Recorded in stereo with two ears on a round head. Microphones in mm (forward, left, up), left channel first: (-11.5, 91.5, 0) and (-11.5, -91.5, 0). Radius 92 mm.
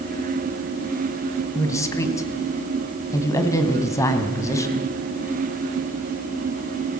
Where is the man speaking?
15° left (ahead or behind), 3 m.